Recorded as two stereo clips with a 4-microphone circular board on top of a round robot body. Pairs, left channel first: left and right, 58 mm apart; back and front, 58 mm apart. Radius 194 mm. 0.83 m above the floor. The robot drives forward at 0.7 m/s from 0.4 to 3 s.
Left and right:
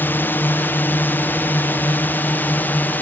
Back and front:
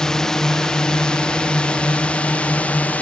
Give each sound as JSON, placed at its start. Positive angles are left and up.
{"t": 0.0, "sound": "a drone", "azimuth_deg": 105}